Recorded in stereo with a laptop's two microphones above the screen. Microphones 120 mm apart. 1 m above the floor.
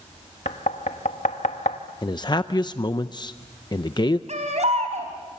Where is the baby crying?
70° right (ahead or behind), 4 m.